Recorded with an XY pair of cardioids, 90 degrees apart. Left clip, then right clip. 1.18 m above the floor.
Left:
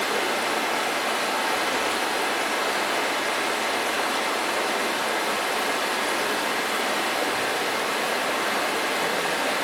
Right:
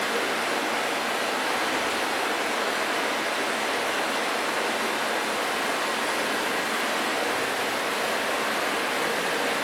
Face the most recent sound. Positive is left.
turn(degrees=45)